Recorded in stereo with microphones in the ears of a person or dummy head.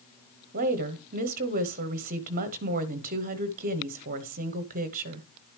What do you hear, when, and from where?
0.5 s a woman speaking: 45° right (ahead or behind), 0.9 m